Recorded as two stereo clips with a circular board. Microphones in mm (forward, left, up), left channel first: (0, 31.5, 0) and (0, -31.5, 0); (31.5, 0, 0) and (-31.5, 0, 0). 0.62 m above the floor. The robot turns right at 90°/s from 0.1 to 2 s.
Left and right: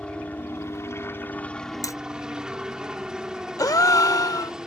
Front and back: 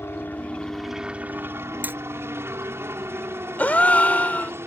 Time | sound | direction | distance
0.0 | a helicopter | 25° left | ?
1.8 | hammering | 115° left | ?
3.6 | a gasp | 65° left | ?